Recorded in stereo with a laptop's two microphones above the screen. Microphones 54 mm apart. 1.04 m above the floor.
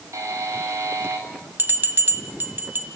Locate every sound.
0.1 s a buzzer: 75° right (ahead or behind), 6.5 m
1.6 s a bell: 40° right (ahead or behind), 1.8 m